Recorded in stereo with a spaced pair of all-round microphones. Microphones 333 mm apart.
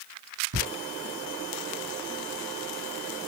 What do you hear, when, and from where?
0.5 s ticking: 75° right (ahead or behind), 1.1 m